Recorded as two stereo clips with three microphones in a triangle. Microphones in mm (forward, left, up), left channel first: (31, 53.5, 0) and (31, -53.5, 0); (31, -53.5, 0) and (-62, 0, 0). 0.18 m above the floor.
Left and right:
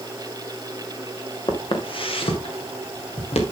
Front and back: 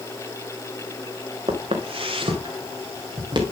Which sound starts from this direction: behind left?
Footsteps, at 1.5 s.